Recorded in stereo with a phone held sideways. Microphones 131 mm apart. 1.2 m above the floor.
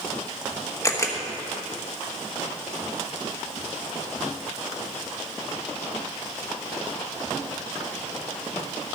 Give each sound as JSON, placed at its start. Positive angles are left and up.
{"t": 0.8, "sound": "a camera shutter", "side_deg": 25, "distance_m": 1.3}